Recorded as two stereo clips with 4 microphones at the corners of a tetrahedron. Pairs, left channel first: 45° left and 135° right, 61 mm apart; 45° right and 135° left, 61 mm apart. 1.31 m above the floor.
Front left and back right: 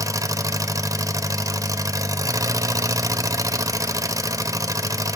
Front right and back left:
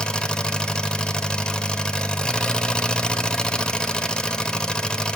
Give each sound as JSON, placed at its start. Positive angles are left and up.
{"t": 0.0, "sound": "an engine running", "azimuth_deg": -120, "distance_m": 0.9}